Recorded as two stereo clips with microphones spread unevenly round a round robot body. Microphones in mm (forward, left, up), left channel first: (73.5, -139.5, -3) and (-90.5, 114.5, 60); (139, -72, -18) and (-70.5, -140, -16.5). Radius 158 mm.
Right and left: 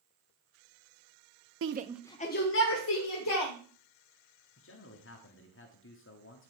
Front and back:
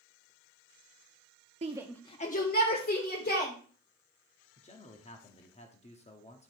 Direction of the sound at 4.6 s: 35° right.